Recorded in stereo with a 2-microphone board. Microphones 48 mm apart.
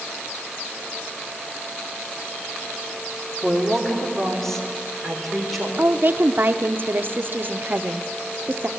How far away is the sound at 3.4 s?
About 3 m.